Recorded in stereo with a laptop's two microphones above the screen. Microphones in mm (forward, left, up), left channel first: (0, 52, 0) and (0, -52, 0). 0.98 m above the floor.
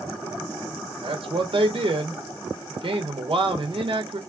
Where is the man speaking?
55° right (ahead or behind), 1.0 m.